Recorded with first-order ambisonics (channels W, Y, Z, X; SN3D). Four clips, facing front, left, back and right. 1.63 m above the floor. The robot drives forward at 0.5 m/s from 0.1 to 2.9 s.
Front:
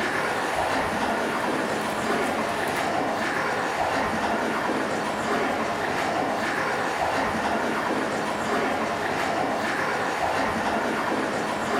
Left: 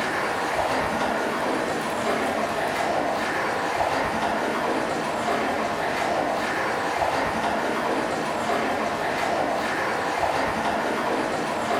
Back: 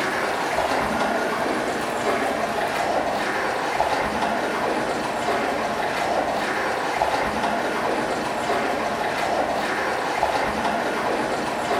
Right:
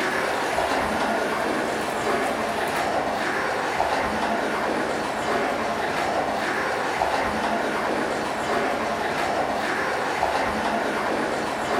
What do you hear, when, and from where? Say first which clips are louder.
0.0 s running water: right 1 dB, back 2 dB; 135° right, 0.8 m; by 11.8 s 165° right, 2 m